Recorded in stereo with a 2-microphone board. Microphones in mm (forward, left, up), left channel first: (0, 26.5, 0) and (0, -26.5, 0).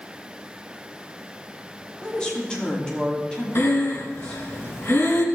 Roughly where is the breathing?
Left.